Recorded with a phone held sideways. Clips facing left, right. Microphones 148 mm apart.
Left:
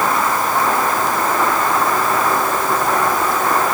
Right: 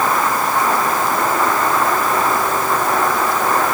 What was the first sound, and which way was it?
Only background noise.